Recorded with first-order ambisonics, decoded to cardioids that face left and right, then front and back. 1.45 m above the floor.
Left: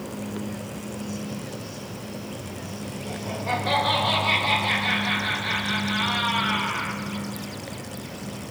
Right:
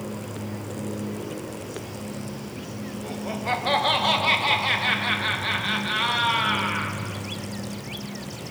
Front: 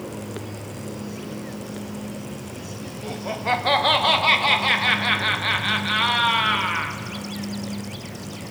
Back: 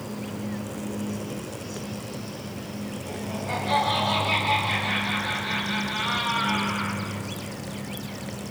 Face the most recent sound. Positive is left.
turn(degrees=-15)